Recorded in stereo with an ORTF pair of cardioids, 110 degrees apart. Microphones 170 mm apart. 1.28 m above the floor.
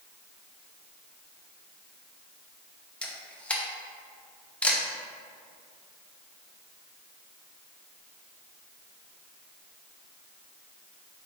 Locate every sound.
3.0 s a camera shutter: 5° left, 0.5 m